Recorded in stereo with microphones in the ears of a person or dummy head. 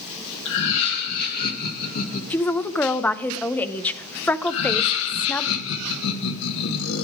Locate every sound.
0.5 s laughter: 70° left (ahead or behind), 1.9 m; by 2.2 s 45° left (ahead or behind), 2 m
2.3 s a woman speaking: 10° left (ahead or behind), 0.8 m
4.5 s laughter: 75° left (ahead or behind), 1.6 m